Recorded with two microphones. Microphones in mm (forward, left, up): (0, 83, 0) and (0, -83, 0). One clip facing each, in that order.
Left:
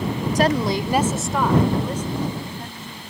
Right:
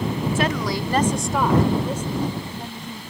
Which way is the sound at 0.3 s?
40° left (ahead or behind).